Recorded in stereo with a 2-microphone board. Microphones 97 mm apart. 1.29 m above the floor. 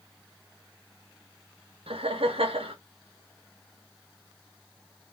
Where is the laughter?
75° right (ahead or behind), 0.8 m.